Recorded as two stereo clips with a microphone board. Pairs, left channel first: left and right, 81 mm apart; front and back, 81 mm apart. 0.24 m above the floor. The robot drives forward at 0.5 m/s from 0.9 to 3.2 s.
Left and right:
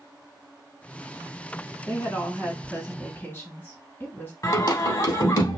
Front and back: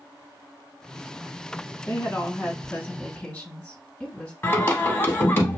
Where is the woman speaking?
35° left, 2.0 m; by 4.3 s 65° left, 1.7 m.